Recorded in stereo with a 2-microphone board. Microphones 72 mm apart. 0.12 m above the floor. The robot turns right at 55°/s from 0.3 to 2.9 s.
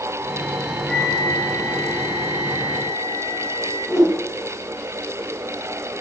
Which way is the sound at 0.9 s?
Straight ahead.